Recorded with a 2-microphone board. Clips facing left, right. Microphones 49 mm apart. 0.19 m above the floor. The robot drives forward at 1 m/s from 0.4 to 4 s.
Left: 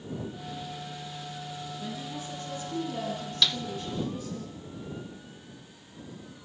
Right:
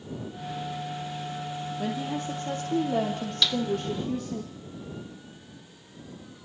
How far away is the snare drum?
About 0.7 m.